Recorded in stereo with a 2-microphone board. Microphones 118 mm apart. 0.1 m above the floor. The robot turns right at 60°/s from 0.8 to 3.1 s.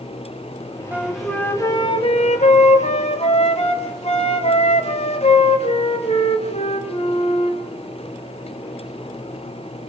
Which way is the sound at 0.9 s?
15° right.